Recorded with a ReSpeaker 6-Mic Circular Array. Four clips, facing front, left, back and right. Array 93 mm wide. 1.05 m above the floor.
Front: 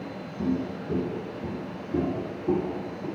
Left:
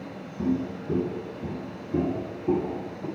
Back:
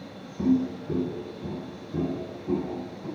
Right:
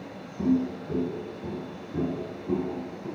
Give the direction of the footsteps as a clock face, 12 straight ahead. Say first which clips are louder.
Right 2 dB, back 5 dB; 6 o'clock.